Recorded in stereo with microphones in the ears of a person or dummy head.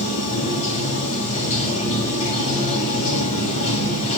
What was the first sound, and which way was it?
Running water, 40° left (ahead or behind).